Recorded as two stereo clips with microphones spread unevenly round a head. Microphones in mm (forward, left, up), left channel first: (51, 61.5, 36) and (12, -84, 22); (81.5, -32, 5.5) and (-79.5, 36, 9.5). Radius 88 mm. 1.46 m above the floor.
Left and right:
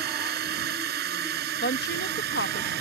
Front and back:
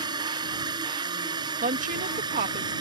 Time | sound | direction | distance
0.0 | a drone | 135° right | ?
1.6 | a woman speaking | 110° left | ?